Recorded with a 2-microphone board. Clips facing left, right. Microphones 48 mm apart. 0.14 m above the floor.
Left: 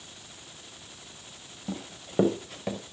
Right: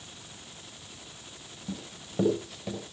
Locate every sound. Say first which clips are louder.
1.7 s running footsteps: left 3 dB; 50° left (ahead or behind), 4.5 m; by 2.8 s 55° left (ahead or behind), 5 m